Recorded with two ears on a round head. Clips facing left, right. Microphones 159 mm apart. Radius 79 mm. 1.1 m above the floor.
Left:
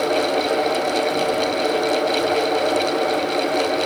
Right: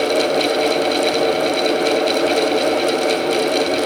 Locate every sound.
Only background noise.